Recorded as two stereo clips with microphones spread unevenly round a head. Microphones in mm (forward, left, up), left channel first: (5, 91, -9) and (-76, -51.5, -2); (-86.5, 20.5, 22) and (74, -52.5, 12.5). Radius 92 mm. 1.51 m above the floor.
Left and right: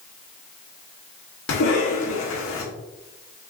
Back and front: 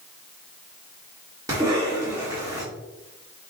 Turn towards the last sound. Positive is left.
turn(degrees=50)